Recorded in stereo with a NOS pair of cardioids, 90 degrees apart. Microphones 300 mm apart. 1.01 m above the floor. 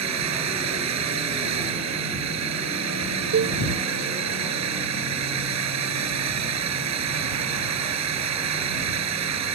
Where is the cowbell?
50° right.